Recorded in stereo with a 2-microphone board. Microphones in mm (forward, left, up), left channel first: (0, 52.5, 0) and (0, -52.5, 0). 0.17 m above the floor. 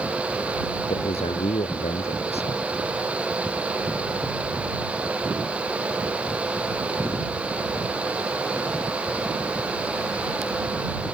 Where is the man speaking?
75° left (ahead or behind).